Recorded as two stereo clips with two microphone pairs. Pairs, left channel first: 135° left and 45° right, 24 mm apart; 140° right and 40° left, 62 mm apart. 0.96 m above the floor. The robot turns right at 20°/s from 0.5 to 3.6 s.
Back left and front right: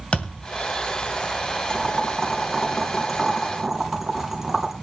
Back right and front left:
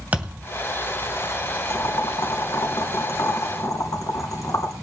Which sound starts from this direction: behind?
Boiling, at 1.7 s.